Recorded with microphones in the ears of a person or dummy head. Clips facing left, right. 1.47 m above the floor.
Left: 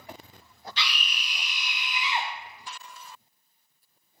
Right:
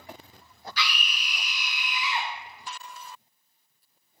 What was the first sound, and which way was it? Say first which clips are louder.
A scream: right 2 dB; 25° left (ahead or behind).